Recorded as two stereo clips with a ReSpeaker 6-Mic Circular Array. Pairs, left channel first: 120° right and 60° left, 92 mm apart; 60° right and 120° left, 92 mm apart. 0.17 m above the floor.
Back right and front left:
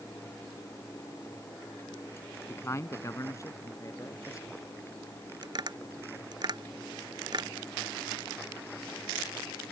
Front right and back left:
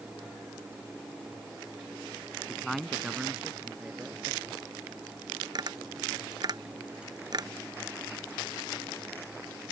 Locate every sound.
2.5 s a man speaking: 135° right; by 4.6 s 170° right
5.4 s tapping: 90° left